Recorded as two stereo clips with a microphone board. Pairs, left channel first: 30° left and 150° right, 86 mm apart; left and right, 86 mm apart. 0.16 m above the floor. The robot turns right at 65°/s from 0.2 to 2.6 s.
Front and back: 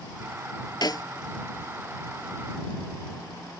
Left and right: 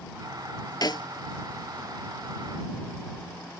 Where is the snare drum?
55° left; by 1.1 s 70° left.